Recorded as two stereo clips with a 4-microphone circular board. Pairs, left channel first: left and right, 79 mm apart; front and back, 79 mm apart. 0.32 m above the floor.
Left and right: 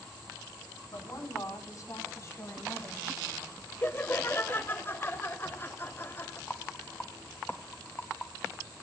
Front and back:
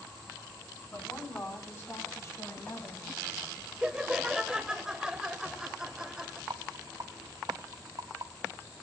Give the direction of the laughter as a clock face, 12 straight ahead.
8 o'clock.